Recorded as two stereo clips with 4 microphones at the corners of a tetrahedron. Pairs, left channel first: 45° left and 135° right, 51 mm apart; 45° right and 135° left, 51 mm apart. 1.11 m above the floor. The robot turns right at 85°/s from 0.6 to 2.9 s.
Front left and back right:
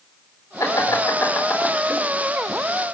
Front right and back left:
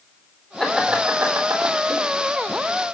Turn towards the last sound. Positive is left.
turn(degrees=-130)